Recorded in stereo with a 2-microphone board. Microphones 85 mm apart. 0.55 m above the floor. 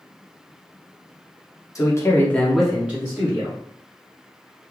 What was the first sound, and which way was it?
A man speaking, 40° left (ahead or behind).